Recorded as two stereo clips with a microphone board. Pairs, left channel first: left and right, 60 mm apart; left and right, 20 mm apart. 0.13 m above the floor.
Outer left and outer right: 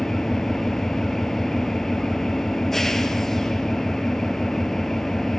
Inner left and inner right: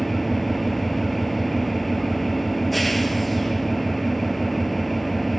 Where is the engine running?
5° left (ahead or behind), 0.9 m.